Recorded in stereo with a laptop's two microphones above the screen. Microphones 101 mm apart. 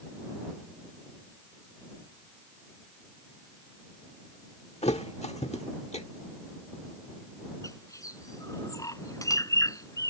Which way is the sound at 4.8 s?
80° left.